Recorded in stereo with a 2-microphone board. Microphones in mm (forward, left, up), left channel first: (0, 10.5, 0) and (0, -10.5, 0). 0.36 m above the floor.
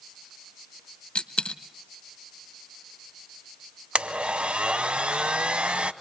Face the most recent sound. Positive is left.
turn(degrees=-75)  # may be behind; listen again after turning